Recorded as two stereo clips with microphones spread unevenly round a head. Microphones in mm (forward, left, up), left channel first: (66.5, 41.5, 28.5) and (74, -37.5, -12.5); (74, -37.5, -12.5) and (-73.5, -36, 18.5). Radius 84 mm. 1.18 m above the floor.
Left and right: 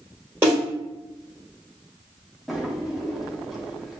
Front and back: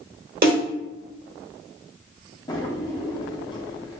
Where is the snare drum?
175° right, 1.8 m.